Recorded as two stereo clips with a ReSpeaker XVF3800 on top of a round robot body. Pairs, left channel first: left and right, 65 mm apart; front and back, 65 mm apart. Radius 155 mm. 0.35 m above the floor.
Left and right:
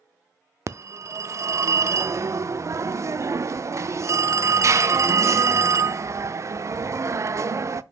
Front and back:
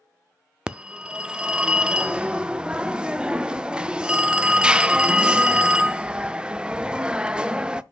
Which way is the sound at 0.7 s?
105° right.